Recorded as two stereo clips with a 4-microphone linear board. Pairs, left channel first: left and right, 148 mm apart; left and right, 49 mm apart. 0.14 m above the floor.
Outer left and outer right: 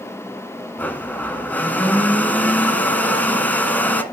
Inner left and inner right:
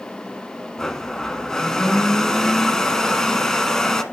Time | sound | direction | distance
0.8 | a blender | 10° left (ahead or behind) | 1.0 m